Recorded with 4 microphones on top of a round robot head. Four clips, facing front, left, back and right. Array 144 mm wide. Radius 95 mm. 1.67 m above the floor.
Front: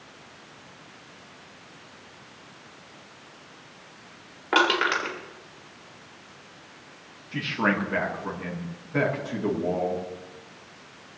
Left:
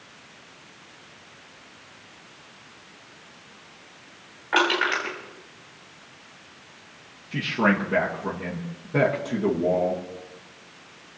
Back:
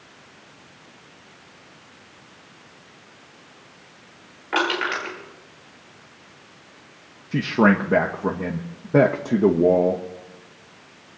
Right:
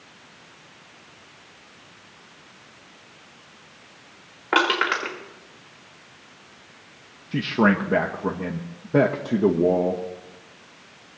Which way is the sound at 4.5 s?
70° right.